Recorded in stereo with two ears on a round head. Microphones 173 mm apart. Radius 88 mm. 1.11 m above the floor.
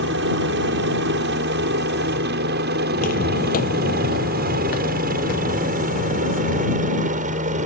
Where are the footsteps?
45° left (ahead or behind); by 6.8 s 50° left (ahead or behind).